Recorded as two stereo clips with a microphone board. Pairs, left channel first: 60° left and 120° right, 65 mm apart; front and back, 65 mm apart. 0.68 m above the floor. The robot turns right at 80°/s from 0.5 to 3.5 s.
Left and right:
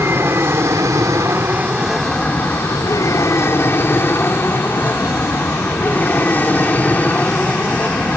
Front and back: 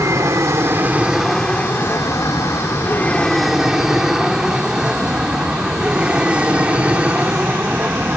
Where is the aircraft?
160° right; by 8.2 s 120° left.